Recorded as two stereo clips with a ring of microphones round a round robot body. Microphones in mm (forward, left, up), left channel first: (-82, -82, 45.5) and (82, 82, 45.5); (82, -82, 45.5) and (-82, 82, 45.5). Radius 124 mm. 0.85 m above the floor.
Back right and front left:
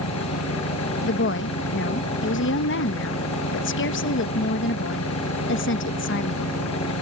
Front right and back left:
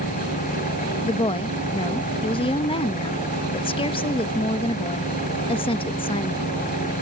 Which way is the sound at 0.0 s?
105° right.